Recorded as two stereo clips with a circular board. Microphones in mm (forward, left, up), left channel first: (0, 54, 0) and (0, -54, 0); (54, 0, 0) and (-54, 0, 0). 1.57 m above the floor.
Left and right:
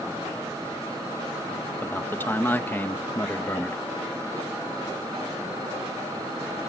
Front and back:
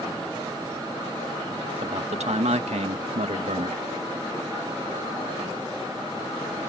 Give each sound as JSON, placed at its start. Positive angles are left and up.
{"t": 1.8, "sound": "a man speaking", "azimuth_deg": 160}